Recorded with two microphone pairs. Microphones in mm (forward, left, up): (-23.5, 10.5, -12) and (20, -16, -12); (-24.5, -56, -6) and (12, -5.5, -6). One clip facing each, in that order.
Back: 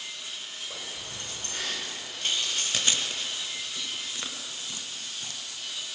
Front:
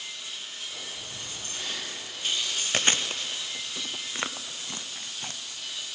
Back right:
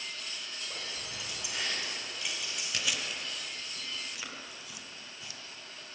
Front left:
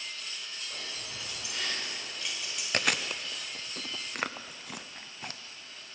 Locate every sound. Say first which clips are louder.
0.7 s keys jangling: even, back right 1 dB; 165° left, 5 m; by 2.6 s 145° left, 4 m
2.7 s chewing: front 5 dB, front left 6 dB; 15° left, 0.6 m